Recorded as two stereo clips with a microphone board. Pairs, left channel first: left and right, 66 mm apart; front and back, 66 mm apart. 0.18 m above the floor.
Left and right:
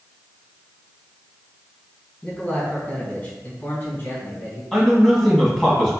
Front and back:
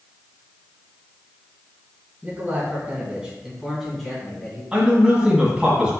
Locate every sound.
2.2 s a man speaking: 155° left, 1.7 m; by 4.6 s 75° left, 1.8 m
4.7 s a man speaking: 160° left, 1.6 m